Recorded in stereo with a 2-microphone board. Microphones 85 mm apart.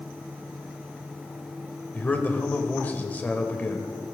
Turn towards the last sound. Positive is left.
turn(degrees=20)  # may be behind; listen again after turning